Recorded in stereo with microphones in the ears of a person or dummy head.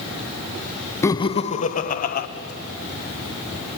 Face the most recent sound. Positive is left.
turn(degrees=50)  # may be behind; listen again after turning